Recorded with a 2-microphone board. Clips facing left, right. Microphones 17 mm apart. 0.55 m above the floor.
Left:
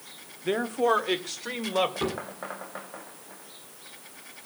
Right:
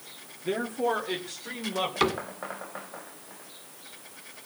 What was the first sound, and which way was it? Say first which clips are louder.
A man speaking: left 3 dB; 20° left (ahead or behind).